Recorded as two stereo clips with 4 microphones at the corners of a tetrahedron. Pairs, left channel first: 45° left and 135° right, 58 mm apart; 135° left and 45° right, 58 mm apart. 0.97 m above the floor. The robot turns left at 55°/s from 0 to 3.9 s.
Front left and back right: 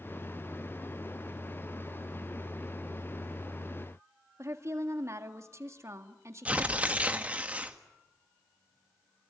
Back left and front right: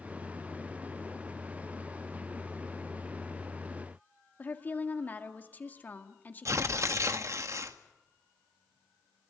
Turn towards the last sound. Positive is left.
turn(degrees=-70)